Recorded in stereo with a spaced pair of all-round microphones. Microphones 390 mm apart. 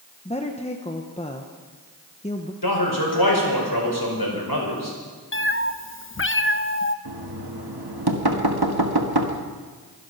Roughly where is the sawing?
No sawing in this recording.